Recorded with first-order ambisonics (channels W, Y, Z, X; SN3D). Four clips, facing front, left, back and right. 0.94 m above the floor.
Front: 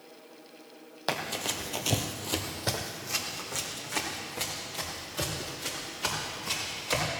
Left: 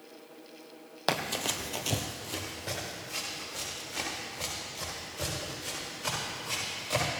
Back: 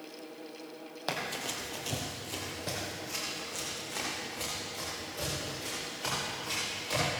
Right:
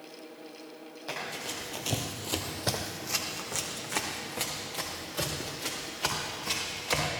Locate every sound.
1.1 s running footsteps: 75° left, 1.5 m; by 7.1 s 75° right, 7.5 m